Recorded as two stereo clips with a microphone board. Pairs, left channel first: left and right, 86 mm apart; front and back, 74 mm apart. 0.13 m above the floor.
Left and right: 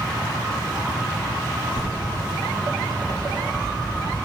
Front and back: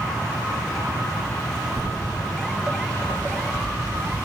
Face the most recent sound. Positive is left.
turn(degrees=-115)